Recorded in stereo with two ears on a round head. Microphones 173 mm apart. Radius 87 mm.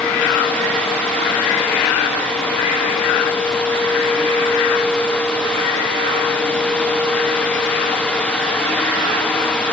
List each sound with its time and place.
Only background noise.